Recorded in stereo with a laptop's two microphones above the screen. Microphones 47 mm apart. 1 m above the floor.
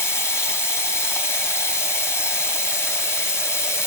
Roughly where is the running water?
Left.